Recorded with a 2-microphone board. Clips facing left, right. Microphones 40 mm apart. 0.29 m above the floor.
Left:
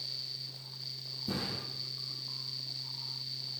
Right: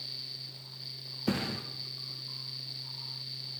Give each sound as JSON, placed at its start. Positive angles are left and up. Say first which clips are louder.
{"t": 1.3, "sound": "a thud", "louder": "right 5 dB", "side_deg": -85, "distance_m": 1.7}